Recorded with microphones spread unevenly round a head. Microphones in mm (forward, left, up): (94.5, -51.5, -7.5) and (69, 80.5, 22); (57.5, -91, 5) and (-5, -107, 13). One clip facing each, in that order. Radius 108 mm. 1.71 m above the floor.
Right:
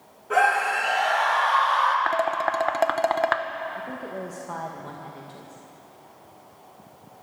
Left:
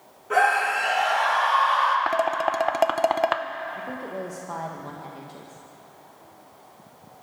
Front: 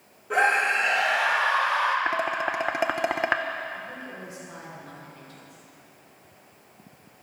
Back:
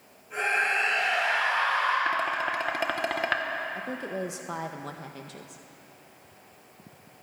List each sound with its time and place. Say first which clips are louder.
0.3 s a scream: even, front 5 dB; 10° left, 3.5 m; by 2.0 s 20° left, 4 m
2.1 s dishes clattering: left 1 dB, front 1 dB; 80° left, 0.7 m
3.8 s a woman speaking: left 1 dB, back 5 dB; straight behind, 1.8 m